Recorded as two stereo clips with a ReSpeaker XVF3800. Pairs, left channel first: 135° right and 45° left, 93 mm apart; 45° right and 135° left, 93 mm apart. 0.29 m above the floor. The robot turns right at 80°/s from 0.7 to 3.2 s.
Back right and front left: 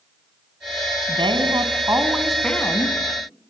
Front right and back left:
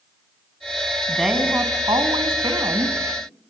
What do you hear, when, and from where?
1.1 s a woman speaking: 35° left, 3 m; by 3.0 s 175° right, 3 m